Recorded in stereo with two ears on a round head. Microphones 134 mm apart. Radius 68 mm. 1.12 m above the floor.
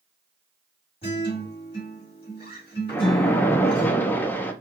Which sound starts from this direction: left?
A guitar, at 1.0 s.